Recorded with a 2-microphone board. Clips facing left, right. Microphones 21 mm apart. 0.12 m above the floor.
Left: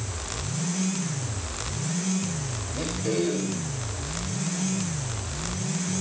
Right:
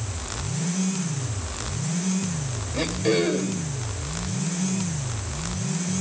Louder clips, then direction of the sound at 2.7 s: Right 5 dB; 45° right (ahead or behind).